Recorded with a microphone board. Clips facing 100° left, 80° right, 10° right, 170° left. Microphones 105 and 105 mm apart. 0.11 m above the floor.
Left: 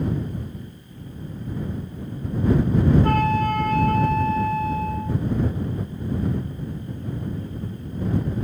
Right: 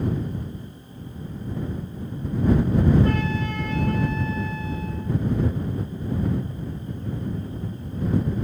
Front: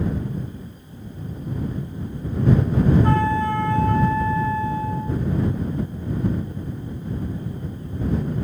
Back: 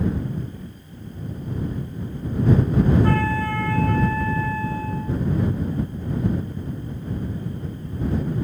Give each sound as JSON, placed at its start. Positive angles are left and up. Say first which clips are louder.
{"t": 3.0, "sound": "a flute", "louder": "left 5 dB, front 2 dB", "azimuth_deg": 60}